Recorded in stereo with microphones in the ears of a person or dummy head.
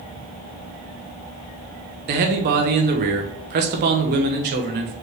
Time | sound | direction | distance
2.1 | a man speaking | 40° right (ahead or behind) | 0.8 m